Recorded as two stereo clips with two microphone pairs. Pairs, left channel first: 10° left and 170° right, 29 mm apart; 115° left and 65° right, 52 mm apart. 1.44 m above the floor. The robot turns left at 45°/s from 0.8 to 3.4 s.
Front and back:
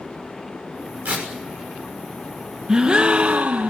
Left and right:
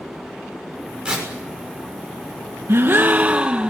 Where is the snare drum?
I don't hear a snare drum.